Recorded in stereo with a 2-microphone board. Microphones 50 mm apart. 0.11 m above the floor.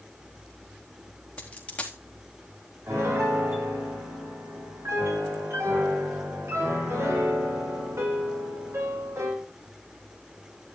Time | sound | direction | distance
1.4 | a dropped coin | 25° left (ahead or behind) | 3.5 m
2.9 | a piano | 70° right (ahead or behind) | 6 m